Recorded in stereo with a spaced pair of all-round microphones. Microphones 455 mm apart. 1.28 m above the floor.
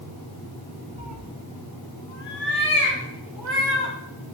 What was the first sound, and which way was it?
A cat meowing, 15° right (ahead or behind).